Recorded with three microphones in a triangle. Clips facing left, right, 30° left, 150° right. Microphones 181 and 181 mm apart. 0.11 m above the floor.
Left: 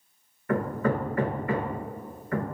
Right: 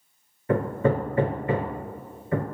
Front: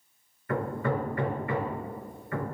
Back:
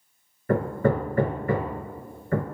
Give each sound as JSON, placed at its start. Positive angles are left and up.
{"t": 0.5, "sound": "hammering", "azimuth_deg": -145, "distance_m": 0.5}